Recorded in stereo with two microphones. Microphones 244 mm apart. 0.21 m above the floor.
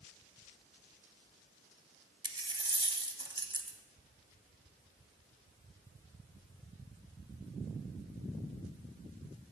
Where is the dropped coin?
20° right (ahead or behind), 0.6 m.